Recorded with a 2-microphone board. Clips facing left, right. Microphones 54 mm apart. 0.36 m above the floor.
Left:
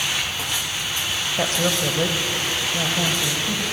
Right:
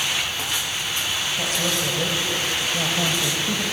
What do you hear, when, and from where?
1.4 s a woman speaking: 50° left (ahead or behind), 1.8 m; by 3.6 s 15° right (ahead or behind), 2 m